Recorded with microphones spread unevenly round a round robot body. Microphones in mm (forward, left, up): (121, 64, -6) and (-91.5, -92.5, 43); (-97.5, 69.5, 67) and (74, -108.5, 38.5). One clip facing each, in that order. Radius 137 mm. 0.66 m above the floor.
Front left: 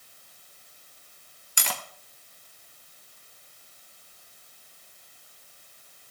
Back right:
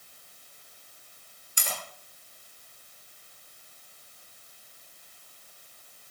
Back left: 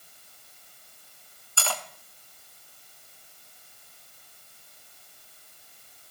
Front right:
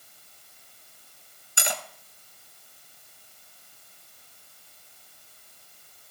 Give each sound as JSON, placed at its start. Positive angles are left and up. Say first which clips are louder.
{"t": 1.6, "sound": "cutlery clinking", "louder": "front left 1 dB, front right 1 dB", "azimuth_deg": 25, "distance_m": 0.8}